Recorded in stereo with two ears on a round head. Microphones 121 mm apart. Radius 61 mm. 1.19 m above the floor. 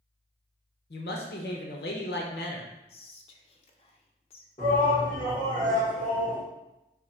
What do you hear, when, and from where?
0.9 s a woman speaking: 75° left (ahead or behind), 0.7 m
2.9 s whispering: 45° left (ahead or behind), 0.6 m
4.6 s a shout: 45° left (ahead or behind), 2 m